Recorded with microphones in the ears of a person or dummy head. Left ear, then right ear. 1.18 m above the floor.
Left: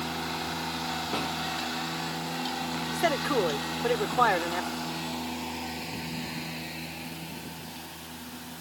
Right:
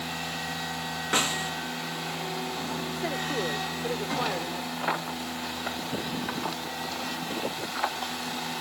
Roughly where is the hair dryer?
I don't hear a hair dryer.